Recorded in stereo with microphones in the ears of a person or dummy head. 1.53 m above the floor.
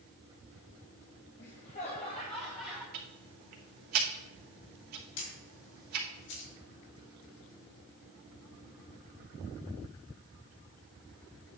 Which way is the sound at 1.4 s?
50° left (ahead or behind).